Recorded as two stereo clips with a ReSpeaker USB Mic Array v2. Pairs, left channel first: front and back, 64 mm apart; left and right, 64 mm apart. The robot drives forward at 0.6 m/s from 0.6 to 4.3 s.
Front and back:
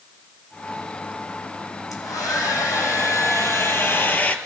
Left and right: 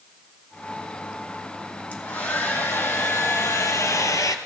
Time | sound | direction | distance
1.9 | a hair dryer | 25° left | 2 m